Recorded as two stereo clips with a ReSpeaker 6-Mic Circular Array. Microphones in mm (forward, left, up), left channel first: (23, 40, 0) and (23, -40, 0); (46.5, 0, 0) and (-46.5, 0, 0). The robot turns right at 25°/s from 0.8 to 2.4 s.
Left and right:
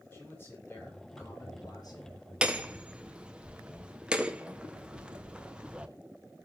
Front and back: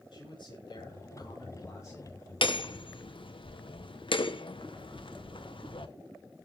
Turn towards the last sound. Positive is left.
turn(degrees=-15)